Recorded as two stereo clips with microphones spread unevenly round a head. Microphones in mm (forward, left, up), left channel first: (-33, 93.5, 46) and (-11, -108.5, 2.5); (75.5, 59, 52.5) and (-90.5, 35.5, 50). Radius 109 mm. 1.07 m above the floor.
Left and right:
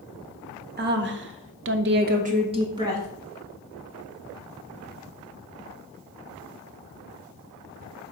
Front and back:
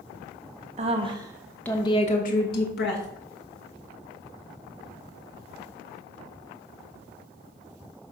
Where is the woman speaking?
120° right, 1.0 m; by 3.1 s 10° right, 1.3 m.